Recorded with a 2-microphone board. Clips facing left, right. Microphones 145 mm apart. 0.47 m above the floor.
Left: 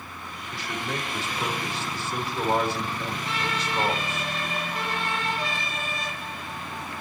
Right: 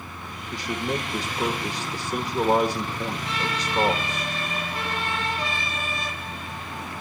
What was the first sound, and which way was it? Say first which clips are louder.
A man speaking: right 5 dB; 35° right (ahead or behind).